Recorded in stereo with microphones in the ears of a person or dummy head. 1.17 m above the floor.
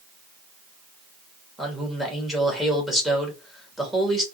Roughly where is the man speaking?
Centre.